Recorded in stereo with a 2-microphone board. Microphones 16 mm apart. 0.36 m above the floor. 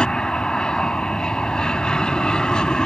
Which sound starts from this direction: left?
An aircraft, at 0.0 s.